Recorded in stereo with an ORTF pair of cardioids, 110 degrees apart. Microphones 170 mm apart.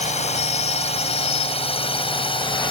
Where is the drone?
40° left; by 2.7 s 30° left.